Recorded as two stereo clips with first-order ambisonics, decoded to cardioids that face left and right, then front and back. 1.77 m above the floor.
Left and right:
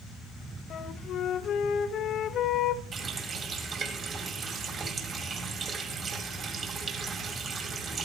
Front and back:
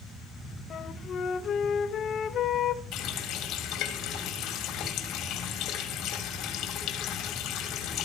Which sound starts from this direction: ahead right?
A running tap, at 2.9 s.